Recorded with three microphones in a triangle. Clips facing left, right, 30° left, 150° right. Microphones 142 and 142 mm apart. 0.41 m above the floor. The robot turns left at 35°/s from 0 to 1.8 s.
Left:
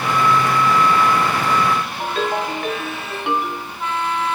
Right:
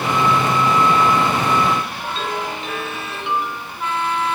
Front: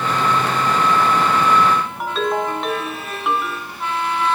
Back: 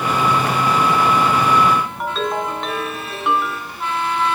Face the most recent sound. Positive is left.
turn(degrees=115)